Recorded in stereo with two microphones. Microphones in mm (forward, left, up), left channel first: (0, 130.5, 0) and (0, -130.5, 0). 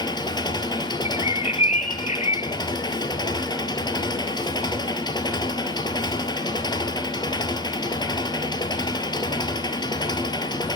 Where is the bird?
25° left (ahead or behind), 0.6 m.